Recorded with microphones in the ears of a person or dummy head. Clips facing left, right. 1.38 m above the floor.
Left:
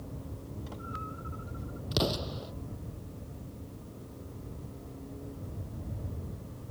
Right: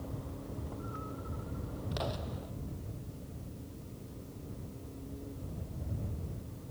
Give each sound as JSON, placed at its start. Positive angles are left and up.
{"t": 1.9, "sound": "an explosion", "side_deg": 50}